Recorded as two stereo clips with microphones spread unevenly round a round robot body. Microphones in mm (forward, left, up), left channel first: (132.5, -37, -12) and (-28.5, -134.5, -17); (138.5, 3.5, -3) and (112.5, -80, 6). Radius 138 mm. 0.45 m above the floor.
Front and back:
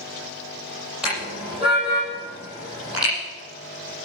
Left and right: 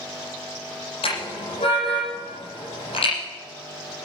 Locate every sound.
1.0 s a car horn: 125° left, 7.5 m